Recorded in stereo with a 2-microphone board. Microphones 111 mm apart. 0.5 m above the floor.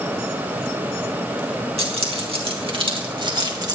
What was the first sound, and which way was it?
Keys jangling, 65° right (ahead or behind).